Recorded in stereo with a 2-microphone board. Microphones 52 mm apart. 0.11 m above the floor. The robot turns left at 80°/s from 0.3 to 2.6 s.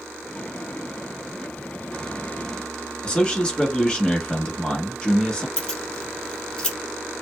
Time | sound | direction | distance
3.0 | a man speaking | 20° left (ahead or behind) | 1.2 m
5.6 | keys jangling | 15° left (ahead or behind) | 1.1 m